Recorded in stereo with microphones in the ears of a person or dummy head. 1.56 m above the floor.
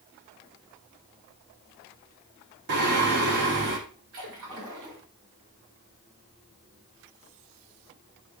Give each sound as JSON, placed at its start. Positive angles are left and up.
{"t": 2.7, "sound": "singing", "side_deg": -60, "distance_m": 1.6}
{"t": 4.1, "sound": "a splash", "side_deg": -70, "distance_m": 4.5}